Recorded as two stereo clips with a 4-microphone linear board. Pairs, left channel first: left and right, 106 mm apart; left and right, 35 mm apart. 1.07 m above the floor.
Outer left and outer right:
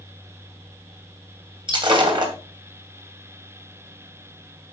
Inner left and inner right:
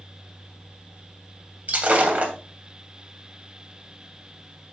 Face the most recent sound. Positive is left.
turn(degrees=-50)  # may be behind; listen again after turning